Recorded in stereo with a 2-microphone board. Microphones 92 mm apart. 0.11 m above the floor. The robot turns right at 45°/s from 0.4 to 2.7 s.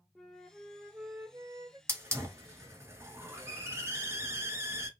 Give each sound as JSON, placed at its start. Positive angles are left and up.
{"t": 0.1, "sound": "a flute", "azimuth_deg": 175, "distance_m": 0.7}
{"t": 1.9, "sound": "a hiss", "side_deg": -30, "distance_m": 1.0}